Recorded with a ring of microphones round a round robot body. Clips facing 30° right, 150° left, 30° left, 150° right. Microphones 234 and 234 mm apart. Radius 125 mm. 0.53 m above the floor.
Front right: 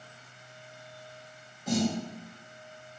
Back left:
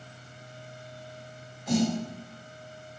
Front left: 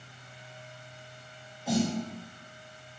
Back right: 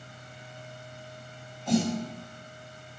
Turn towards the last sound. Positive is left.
turn(degrees=-45)